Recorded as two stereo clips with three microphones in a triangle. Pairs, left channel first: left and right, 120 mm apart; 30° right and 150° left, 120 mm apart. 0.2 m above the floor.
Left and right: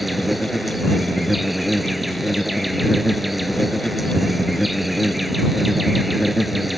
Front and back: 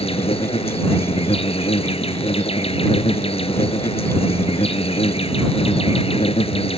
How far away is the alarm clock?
I don't hear an alarm clock.